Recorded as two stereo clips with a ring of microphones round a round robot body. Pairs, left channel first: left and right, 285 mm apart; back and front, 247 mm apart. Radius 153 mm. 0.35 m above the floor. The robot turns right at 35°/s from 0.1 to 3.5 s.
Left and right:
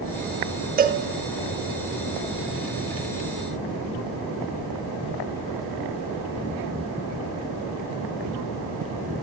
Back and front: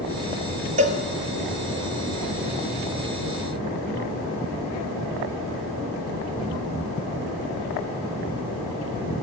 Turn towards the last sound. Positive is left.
turn(degrees=50)